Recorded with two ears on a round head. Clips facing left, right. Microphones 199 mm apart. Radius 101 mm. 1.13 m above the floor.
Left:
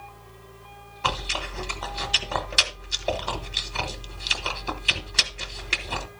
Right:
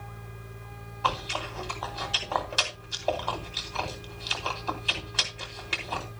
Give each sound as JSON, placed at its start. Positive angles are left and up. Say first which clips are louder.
{"t": 1.0, "sound": "chewing", "louder": "left 1 dB", "side_deg": 30, "distance_m": 1.4}